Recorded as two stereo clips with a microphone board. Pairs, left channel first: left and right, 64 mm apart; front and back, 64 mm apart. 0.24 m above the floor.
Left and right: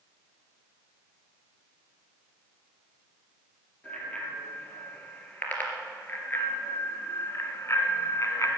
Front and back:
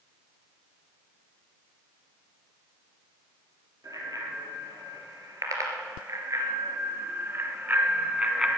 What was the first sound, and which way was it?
A bicycle bell, 160° left.